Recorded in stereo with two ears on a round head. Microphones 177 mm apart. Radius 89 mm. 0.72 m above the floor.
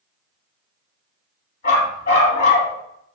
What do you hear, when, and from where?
1.6 s a dog barking: 35° left (ahead or behind), 1.8 m